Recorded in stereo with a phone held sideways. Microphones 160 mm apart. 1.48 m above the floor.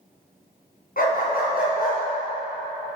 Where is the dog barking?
65° left (ahead or behind), 3.5 m; by 2.0 s 70° left (ahead or behind), 5 m.